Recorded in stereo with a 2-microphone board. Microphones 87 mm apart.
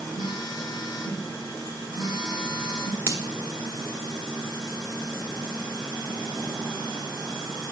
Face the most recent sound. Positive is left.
turn(degrees=-30)  # may be behind; listen again after turning